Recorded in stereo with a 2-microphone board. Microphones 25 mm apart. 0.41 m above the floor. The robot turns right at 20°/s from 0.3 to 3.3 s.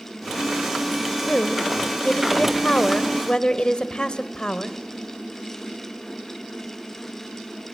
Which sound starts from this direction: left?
A woman speaking, at 1.3 s.